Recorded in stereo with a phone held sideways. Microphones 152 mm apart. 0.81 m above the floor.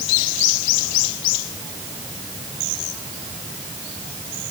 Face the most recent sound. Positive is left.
No sound to turn to.